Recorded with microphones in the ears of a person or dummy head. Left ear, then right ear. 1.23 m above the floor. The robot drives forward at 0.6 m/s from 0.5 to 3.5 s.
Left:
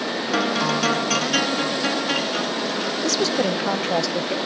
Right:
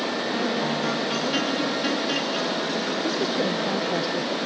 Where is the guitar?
40° left (ahead or behind), 0.6 m; by 4.0 s 10° left (ahead or behind), 2 m.